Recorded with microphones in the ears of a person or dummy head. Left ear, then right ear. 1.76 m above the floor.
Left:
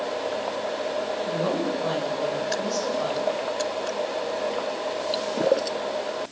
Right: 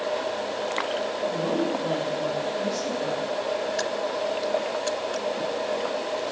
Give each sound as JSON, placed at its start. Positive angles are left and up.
{"t": 1.2, "sound": "a woman speaking", "side_deg": 45, "distance_m": 7.0}